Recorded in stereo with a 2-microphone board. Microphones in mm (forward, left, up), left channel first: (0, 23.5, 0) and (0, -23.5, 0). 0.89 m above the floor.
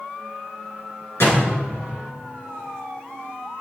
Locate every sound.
1.2 s a door slam: 60° left (ahead or behind), 9 m